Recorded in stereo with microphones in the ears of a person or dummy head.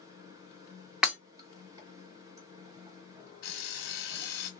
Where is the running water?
15° right (ahead or behind), 1.6 m.